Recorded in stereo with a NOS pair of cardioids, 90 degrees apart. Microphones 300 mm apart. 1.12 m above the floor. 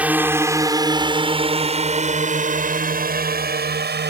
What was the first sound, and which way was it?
A drone, 5° right.